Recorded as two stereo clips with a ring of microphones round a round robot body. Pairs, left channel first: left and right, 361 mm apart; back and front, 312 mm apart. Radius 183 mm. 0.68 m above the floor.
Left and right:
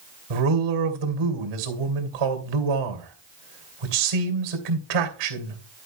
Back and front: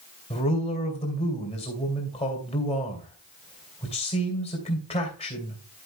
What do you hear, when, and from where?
0.3 s a man speaking: 105° right, 2.5 m